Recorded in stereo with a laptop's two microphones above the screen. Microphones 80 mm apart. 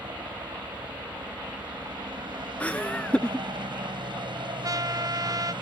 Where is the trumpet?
50° right (ahead or behind).